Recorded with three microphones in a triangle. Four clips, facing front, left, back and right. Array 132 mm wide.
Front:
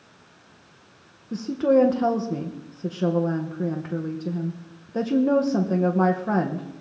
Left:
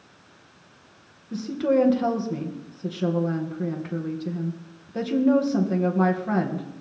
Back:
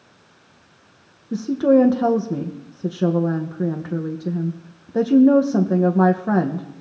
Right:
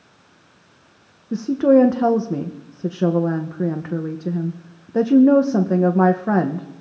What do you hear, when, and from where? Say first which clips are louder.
1.3 s a woman speaking: right 8 dB, back 4 dB; 105° right, 0.8 m